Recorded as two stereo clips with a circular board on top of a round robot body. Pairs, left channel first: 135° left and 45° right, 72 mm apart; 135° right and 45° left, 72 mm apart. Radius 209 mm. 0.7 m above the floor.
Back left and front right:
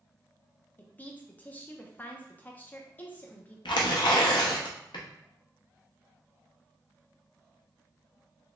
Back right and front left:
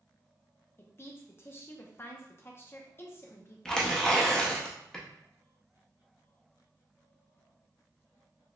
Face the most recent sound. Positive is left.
turn(degrees=145)